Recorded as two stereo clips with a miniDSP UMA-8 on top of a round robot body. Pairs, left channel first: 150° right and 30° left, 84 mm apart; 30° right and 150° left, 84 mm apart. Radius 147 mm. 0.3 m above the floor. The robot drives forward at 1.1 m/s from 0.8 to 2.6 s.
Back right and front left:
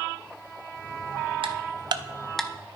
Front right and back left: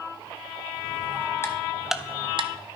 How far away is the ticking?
About 0.9 m.